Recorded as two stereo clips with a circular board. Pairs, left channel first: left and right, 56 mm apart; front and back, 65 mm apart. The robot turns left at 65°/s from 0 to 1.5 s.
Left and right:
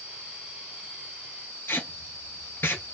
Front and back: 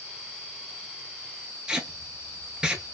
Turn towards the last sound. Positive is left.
turn(degrees=105)